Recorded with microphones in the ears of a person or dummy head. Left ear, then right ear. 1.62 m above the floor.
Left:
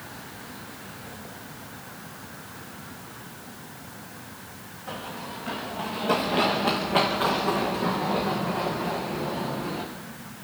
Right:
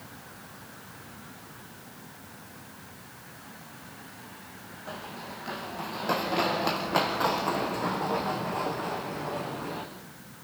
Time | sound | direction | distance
4.9 | running footsteps | 25° right (ahead or behind) | 4 m